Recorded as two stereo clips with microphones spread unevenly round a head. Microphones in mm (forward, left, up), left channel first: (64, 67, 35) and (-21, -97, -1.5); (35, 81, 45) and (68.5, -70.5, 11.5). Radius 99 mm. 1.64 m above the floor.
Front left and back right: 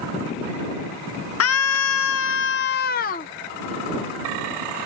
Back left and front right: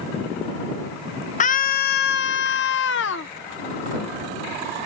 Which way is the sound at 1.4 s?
60° left.